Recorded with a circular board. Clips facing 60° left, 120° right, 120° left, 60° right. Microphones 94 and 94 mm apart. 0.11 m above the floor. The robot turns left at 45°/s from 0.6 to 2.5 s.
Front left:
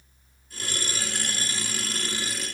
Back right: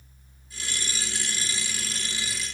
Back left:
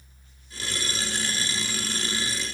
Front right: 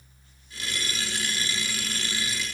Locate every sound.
Only background noise.